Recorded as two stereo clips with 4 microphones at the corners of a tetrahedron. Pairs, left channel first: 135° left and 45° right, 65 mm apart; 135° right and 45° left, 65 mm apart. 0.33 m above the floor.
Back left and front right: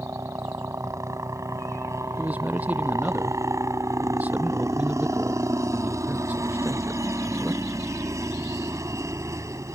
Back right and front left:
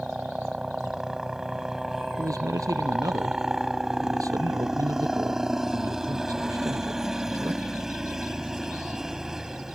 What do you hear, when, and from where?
0.0 s a helicopter: 35° right
2.2 s a man speaking: 20° left